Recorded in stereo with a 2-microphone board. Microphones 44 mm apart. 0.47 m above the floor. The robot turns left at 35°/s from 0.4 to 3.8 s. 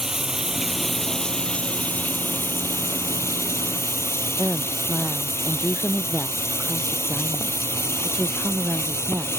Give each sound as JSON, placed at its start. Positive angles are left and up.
{"t": 0.0, "sound": "running water", "azimuth_deg": -165}
{"t": 4.4, "sound": "a woman speaking", "side_deg": 0}